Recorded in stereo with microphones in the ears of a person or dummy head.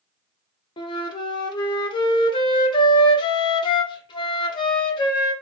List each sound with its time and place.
0.8 s a flute: 30° left (ahead or behind), 0.6 m